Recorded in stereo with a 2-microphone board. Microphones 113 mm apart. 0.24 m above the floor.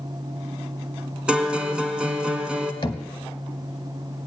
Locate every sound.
1.3 s a guitar: 10° right (ahead or behind), 1.2 m
2.8 s knocking: 40° left (ahead or behind), 0.9 m